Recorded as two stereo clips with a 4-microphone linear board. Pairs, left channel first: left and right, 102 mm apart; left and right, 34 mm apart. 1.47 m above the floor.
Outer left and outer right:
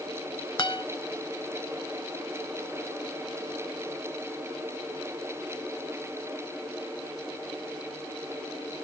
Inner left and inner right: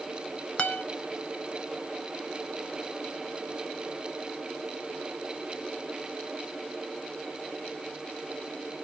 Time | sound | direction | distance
0.6 | a guitar | 45° left (ahead or behind) | 0.8 m